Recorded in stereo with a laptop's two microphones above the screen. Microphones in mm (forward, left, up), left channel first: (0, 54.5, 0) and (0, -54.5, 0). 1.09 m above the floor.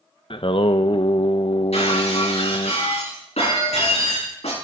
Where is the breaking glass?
90° left, 7.5 m.